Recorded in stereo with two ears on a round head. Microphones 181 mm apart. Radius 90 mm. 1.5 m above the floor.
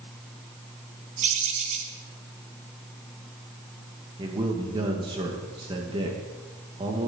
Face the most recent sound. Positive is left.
turn(degrees=-25)  # may be behind; listen again after turning